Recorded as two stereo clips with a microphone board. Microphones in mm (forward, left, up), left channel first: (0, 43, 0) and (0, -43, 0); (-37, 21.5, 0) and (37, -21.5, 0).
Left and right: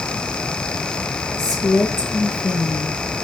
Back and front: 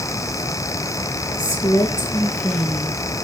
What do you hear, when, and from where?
1.4 s a woman speaking: 105° left, 4 m; by 2.9 s 95° left, 4.5 m